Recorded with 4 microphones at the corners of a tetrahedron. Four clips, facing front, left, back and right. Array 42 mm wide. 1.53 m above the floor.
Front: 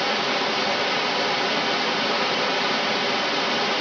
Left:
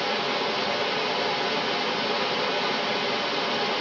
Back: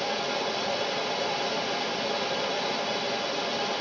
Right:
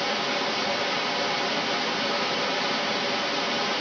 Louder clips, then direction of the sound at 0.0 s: Even, front 6 dB; 10° left.